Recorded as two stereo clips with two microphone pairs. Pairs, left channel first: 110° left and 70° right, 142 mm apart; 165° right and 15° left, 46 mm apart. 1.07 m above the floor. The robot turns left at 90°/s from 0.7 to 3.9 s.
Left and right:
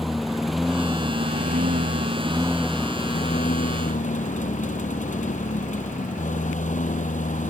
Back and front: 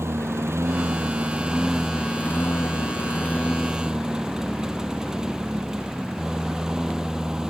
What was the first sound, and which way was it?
A lawn mower, 20° left.